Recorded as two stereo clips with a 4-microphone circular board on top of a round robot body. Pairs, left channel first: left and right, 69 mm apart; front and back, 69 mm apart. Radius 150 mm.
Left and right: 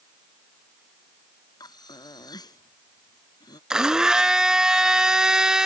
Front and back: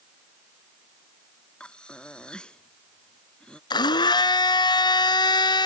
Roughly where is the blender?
Ahead.